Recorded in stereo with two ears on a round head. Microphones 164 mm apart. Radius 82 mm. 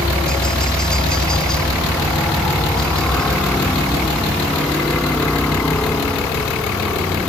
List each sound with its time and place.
0.0 s a helicopter: 5° left (ahead or behind)